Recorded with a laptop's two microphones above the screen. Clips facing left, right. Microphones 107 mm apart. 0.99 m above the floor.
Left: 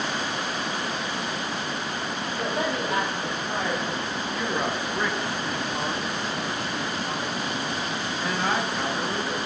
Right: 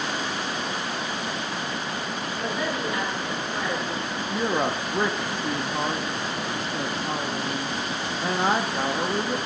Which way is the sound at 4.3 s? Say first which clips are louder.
Right 4 dB; 30° right (ahead or behind).